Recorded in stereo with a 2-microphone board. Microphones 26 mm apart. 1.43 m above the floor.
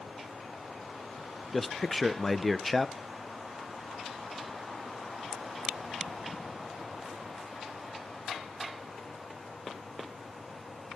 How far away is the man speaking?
About 0.6 m.